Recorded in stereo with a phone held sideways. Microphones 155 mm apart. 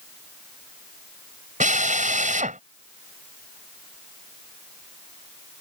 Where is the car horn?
I don't hear a car horn.